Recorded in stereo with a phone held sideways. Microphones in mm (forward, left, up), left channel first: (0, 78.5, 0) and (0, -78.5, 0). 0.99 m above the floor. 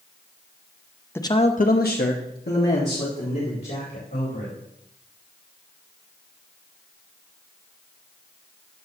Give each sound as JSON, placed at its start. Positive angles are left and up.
{"t": 1.1, "sound": "a man speaking", "side_deg": 15, "distance_m": 0.8}